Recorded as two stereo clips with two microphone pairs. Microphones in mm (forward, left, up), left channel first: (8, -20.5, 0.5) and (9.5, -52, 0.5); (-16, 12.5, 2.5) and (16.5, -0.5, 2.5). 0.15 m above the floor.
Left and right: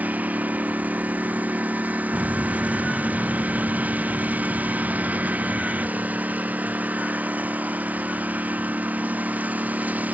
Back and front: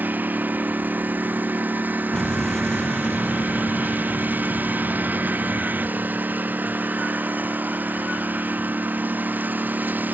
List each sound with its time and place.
0.0 s a lawn mower: 55° right
2.1 s an explosion: 125° right